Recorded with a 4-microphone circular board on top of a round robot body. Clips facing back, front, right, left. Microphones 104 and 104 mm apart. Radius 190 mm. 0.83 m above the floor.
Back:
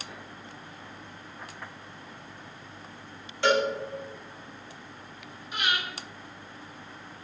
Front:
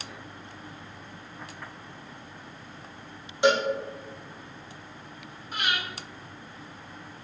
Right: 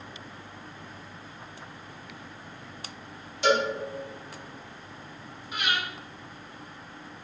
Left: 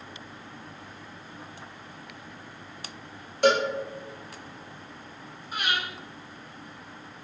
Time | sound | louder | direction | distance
3.4 | a cowbell | front 1 dB, left 2 dB | 70° left | 1.0 m
5.5 | breathing | even, even | 40° left | 1.9 m